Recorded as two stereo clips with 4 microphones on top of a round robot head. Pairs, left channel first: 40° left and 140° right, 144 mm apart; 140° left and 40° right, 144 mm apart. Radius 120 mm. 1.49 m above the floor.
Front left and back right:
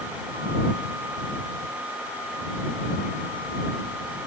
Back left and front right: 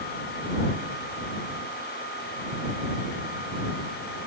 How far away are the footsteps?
I don't hear footsteps.